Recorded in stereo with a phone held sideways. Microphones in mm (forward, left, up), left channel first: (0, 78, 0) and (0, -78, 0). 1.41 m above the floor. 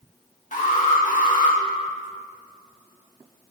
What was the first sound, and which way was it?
An alarm, 60° left (ahead or behind).